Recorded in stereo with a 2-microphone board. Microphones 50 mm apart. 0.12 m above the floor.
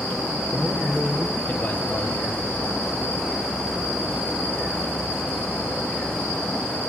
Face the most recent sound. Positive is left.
turn(degrees=35)  # may be behind; listen again after turning